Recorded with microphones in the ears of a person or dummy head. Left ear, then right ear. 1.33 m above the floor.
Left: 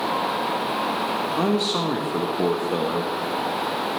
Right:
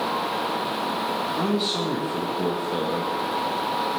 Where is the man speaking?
25° left (ahead or behind), 1.3 m.